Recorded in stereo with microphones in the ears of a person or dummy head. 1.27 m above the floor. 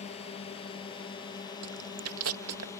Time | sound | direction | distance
0.0 | a drone | 35° left (ahead or behind) | ?
1.6 | chewing | 80° right | ?